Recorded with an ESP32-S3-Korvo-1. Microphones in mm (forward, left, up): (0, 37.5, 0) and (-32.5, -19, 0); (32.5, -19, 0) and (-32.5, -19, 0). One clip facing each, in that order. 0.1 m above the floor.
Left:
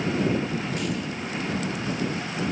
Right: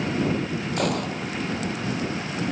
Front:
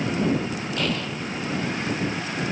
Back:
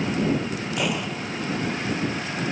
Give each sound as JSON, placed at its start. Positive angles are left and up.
{"t": 0.8, "sound": "a gunshot", "azimuth_deg": -105}